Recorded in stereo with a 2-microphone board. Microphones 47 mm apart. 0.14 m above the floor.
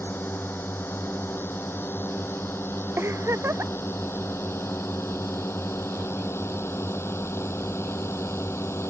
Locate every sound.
0.0 s a drone: 50° left (ahead or behind); by 8.9 s 75° left (ahead or behind)
3.0 s a giggle: 70° right (ahead or behind)